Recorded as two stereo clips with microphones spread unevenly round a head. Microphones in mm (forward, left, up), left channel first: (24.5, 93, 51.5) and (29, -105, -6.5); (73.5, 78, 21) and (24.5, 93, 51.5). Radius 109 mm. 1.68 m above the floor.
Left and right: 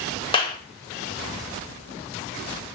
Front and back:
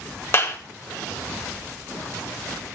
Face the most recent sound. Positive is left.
turn(degrees=25)